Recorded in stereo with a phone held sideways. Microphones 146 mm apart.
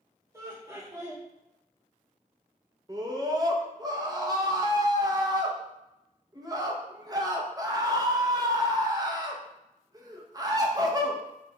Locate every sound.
0.3 s laughter: 20° right (ahead or behind), 0.7 m
2.9 s a scream: 25° right (ahead or behind), 0.6 m